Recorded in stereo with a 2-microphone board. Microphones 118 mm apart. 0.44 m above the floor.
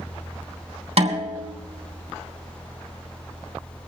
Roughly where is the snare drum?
Right.